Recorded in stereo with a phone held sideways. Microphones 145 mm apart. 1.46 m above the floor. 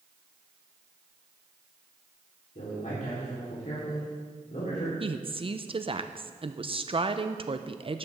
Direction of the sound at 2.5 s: 65° left (ahead or behind).